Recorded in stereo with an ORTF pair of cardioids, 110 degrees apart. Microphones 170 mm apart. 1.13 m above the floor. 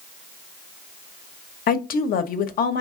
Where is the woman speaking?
60° left, 0.8 m.